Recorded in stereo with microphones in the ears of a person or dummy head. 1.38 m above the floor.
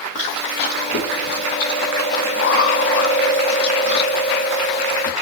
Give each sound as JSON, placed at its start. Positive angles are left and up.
{"t": 0.1, "sound": "chewing", "side_deg": 50, "distance_m": 1.2}